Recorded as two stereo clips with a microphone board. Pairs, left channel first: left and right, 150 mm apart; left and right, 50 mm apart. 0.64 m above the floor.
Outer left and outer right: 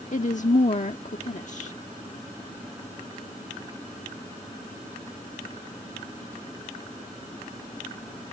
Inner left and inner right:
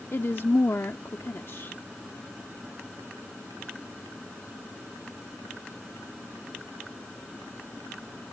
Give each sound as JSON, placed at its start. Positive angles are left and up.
{"t": 0.1, "sound": "a woman speaking", "side_deg": 55}